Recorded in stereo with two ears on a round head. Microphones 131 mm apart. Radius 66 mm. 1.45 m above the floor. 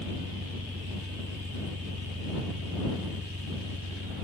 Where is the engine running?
60° right (ahead or behind).